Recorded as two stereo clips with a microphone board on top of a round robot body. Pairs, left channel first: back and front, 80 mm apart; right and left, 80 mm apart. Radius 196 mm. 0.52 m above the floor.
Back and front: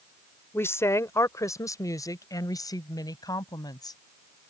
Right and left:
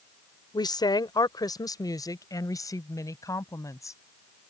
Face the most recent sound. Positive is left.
turn(degrees=-140)